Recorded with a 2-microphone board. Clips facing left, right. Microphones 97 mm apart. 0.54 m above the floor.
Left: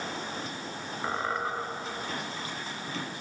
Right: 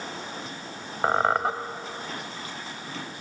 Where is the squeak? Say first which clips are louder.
Right 9 dB; 85° right, 0.8 m.